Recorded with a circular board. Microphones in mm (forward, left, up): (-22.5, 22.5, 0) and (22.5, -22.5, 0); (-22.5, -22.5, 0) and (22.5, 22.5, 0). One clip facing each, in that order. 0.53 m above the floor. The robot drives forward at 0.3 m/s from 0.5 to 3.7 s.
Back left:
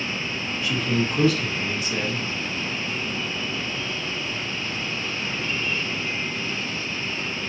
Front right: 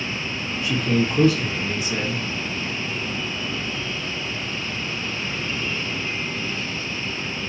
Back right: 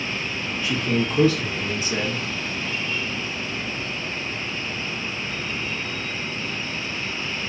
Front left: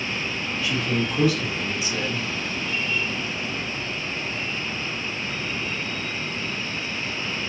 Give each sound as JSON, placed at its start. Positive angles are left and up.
{"t": 0.6, "sound": "a man speaking", "azimuth_deg": -85, "distance_m": 1.4}